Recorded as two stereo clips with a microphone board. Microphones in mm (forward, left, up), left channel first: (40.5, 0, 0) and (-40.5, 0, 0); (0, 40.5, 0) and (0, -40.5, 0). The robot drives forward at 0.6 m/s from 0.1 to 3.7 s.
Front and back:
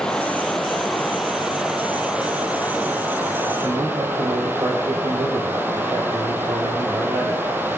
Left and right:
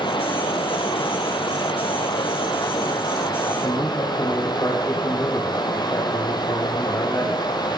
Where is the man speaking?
155° left, 5.5 m.